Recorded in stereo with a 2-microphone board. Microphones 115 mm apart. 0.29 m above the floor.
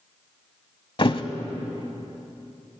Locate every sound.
1.0 s a thud: 50° left (ahead or behind), 0.7 m